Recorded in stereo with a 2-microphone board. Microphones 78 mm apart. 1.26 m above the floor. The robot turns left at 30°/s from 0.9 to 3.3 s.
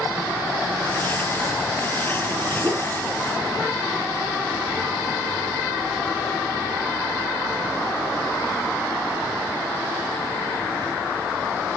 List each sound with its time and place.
2.6 s a whoosh: 30° right (ahead or behind), 0.8 m